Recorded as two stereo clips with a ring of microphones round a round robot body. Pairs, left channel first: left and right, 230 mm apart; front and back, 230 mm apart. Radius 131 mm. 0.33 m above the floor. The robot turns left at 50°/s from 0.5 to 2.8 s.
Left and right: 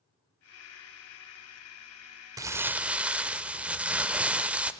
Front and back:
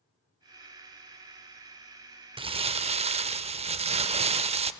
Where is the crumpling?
145° right, 0.5 m; by 4.7 s 170° right, 0.5 m.